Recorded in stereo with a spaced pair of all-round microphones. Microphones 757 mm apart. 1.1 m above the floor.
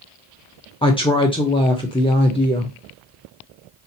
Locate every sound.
0.8 s a woman speaking: 10° left (ahead or behind), 0.6 m